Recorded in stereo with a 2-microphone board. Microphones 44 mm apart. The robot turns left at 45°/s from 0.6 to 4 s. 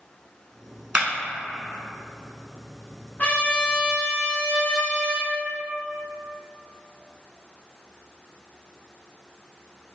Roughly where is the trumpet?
Ahead left.